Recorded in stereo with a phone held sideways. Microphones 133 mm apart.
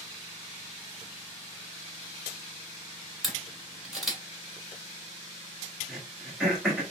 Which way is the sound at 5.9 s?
5° right (ahead or behind).